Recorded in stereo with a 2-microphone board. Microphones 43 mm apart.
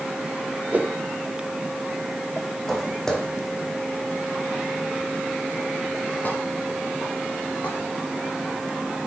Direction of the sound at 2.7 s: 10° left (ahead or behind).